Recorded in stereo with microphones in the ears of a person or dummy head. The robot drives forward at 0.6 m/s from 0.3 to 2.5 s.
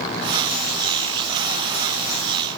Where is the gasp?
I don't hear a gasp.